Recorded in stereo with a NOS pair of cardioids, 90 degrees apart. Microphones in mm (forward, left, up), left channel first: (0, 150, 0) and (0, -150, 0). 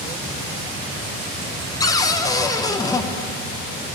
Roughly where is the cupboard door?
Ahead.